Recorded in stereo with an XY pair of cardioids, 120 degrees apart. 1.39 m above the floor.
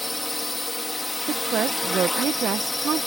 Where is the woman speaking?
55° right.